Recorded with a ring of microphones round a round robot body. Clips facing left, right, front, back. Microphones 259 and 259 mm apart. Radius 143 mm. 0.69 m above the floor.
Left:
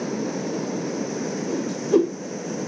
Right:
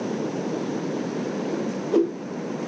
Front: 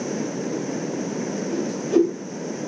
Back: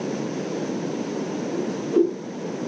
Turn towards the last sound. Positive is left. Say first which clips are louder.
# left 4 dB, front 3 dB
turn(degrees=35)